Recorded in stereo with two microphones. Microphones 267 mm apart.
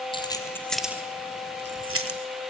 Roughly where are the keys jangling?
Centre.